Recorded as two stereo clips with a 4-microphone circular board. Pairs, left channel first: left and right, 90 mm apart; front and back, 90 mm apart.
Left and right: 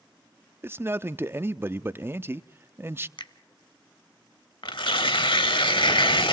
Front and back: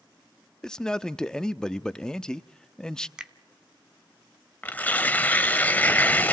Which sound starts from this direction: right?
A man speaking, at 0.6 s.